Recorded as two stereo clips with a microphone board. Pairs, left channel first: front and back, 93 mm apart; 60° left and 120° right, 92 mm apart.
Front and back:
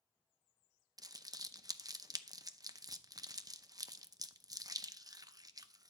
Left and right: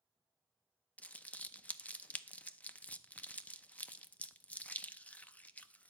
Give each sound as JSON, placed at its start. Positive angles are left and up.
{"t": 1.0, "sound": "crumpling", "azimuth_deg": 135, "distance_m": 0.6}